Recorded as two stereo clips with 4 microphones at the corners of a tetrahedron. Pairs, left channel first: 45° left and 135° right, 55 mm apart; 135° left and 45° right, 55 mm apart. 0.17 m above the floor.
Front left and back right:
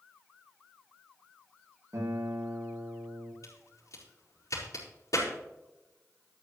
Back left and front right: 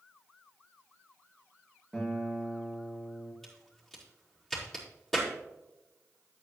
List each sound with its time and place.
1.9 s a guitar: 145° right, 5.5 m
3.4 s a crack: 50° left, 5 m